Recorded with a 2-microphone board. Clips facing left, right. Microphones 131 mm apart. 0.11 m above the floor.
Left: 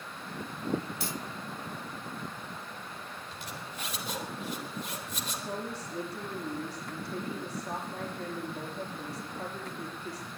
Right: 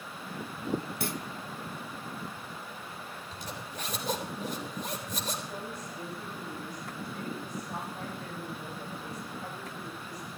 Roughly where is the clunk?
Right.